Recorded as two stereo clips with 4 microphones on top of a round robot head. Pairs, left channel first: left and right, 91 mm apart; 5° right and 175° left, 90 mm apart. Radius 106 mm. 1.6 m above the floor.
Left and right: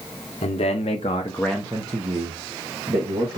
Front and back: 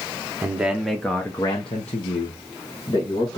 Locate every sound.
0.4 s a man speaking: 100° left, 0.8 m; by 3.4 s 55° right, 1.4 m